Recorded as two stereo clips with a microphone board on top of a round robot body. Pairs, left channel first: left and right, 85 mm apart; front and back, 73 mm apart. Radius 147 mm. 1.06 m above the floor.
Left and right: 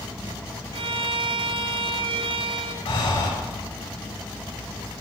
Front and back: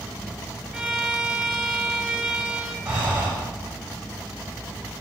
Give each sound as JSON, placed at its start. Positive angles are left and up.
{"t": 0.7, "sound": "a violin", "azimuth_deg": -95, "distance_m": 2.0}
{"t": 2.9, "sound": "breathing", "azimuth_deg": 105, "distance_m": 6.5}